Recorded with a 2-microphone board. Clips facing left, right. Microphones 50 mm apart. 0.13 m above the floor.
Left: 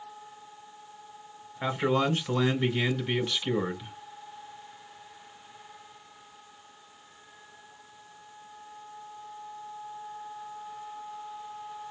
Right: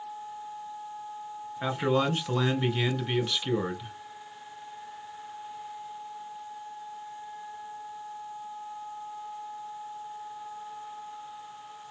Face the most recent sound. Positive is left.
turn(degrees=0)  # may be behind; listen again after turning